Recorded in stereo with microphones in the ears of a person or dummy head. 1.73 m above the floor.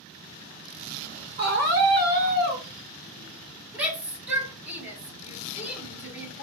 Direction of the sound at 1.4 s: 45° right (ahead or behind).